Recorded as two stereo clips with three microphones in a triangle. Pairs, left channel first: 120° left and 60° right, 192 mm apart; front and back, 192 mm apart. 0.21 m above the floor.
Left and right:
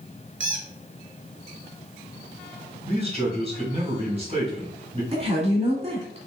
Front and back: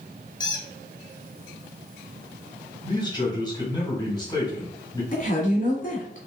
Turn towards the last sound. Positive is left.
turn(degrees=-15)